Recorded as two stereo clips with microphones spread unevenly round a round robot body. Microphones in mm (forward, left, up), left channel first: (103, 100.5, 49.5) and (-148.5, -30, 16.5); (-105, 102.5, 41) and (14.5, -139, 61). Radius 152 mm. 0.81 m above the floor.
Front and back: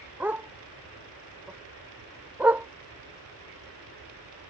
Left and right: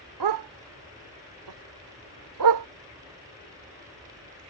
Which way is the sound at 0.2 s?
65° right.